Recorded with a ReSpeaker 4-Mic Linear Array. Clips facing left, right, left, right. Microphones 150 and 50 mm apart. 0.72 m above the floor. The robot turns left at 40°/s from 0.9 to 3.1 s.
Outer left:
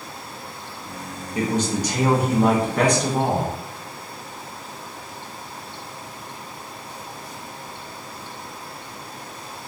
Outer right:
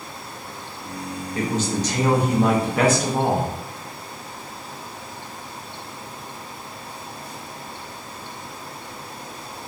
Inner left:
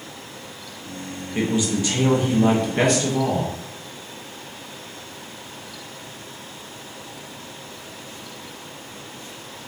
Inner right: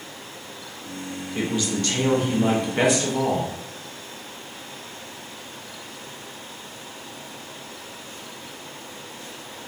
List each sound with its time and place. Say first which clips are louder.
1.4 s a man speaking: outer left 1 dB, inner left 3 dB; 20° left (ahead or behind), 0.6 m; by 3.5 s 10° right (ahead or behind), 0.6 m